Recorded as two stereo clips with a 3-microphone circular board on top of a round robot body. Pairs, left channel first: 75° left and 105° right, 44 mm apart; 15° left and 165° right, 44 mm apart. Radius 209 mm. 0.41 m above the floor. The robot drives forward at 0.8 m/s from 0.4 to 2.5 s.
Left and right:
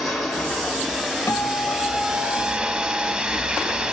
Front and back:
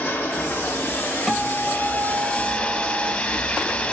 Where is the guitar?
105° left, 0.9 m; by 3.1 s 145° left, 1.5 m.